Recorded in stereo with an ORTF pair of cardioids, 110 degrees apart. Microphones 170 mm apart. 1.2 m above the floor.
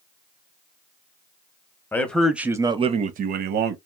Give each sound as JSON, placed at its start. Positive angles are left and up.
{"t": 1.9, "sound": "a man speaking", "azimuth_deg": 10, "distance_m": 0.8}